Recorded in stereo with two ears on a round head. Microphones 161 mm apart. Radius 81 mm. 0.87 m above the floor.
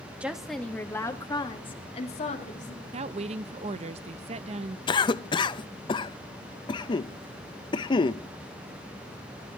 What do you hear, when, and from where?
0.2 s a woman speaking: 5° right (ahead or behind), 1.5 m; by 2.8 s 45° left (ahead or behind), 2.5 m
2.9 s a woman speaking: 35° right (ahead or behind), 0.6 m
4.9 s a cough: 25° left (ahead or behind), 0.6 m